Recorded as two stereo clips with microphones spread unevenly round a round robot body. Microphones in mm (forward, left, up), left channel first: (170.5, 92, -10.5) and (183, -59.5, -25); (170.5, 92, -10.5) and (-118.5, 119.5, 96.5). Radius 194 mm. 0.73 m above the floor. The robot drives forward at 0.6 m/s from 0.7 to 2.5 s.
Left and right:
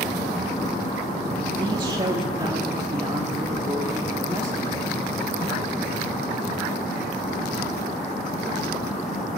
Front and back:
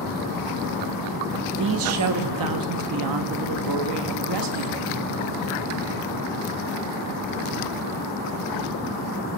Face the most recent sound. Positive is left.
turn(degrees=-150)